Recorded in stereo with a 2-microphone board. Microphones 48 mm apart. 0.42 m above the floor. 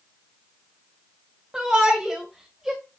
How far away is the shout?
About 2.5 m.